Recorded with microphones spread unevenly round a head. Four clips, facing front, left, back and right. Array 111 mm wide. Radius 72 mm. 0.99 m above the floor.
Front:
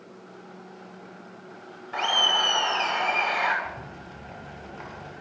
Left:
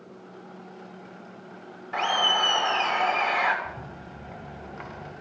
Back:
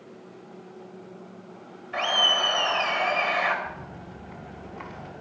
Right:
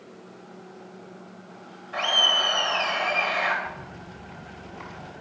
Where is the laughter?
90° left, 2.5 m.